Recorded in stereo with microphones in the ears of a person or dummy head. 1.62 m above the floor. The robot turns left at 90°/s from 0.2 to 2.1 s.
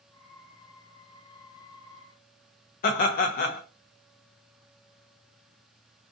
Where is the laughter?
45° left (ahead or behind), 0.6 m.